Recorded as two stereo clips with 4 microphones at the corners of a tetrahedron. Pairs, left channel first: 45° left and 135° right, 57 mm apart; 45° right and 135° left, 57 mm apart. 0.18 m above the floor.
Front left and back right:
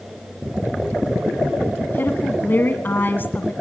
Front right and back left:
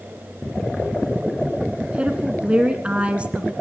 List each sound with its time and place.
1.8 s a woman speaking: 75° left, 1.5 m